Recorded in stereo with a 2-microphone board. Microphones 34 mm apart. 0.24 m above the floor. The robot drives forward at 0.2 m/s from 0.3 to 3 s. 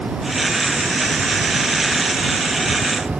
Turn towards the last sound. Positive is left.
No sound to turn to.